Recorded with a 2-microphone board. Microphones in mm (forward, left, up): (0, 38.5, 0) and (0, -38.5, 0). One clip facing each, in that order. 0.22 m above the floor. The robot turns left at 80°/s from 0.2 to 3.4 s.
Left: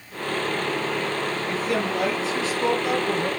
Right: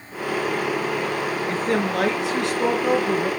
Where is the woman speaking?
35° right, 3 m; by 3.3 s straight behind, 3 m.